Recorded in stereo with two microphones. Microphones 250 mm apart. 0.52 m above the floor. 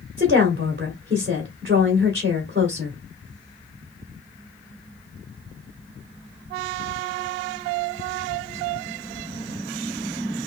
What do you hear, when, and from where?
0.2 s a woman speaking: 40° right (ahead or behind), 1.5 m